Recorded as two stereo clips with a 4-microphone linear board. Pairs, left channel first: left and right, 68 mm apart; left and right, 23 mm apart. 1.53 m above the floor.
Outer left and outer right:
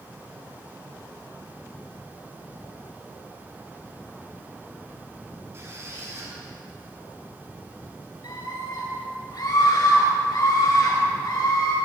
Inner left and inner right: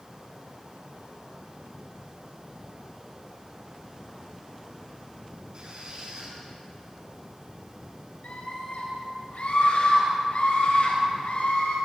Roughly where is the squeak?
Right.